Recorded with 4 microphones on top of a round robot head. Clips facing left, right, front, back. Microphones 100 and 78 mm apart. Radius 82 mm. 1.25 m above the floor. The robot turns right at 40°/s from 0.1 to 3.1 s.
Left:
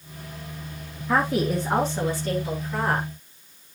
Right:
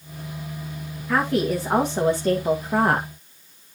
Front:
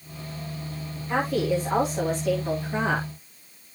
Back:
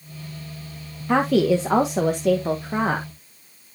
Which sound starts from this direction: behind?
A woman speaking, at 1.1 s.